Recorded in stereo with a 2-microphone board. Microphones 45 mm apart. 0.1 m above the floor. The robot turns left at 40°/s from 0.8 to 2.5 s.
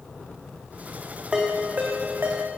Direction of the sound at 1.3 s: 20° right (ahead or behind).